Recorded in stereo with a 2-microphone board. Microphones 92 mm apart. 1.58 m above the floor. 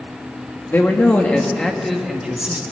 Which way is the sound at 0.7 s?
25° left (ahead or behind).